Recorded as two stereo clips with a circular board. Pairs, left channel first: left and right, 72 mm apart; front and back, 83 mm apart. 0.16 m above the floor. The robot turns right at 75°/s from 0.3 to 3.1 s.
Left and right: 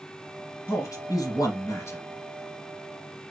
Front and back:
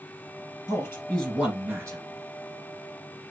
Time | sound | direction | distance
0.7 | a man speaking | 40° left | 2 m